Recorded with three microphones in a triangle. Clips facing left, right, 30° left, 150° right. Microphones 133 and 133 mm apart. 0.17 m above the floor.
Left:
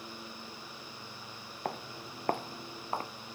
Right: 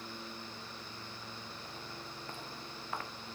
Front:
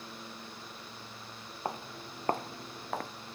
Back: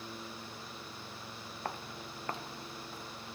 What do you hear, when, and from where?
1.6 s footsteps: 100° left, 1.1 m; by 3.1 s 30° left, 0.9 m